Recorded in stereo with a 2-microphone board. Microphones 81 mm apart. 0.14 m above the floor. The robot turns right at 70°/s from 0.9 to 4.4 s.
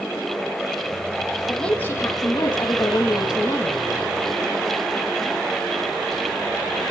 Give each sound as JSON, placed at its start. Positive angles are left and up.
{"t": 1.5, "sound": "a woman speaking", "azimuth_deg": 0, "distance_m": 5.5}